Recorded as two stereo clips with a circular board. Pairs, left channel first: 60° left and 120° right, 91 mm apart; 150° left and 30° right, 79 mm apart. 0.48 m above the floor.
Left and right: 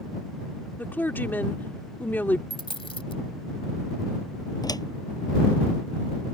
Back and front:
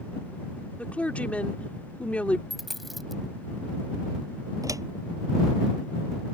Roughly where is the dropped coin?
Ahead left.